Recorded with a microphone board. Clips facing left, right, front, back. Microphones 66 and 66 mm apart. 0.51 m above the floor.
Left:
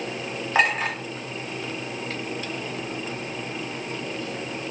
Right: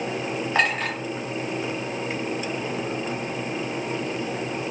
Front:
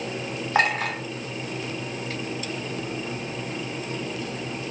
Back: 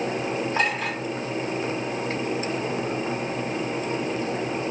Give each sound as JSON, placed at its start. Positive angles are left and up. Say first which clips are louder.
{"t": 0.6, "sound": "a clink", "louder": "left 2 dB, front 7 dB", "azimuth_deg": 10, "distance_m": 1.3}